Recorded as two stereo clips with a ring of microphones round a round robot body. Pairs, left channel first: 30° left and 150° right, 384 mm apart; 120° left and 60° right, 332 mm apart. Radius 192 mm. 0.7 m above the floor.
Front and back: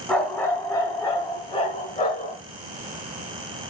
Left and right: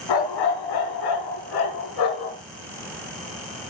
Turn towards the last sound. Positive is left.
turn(degrees=100)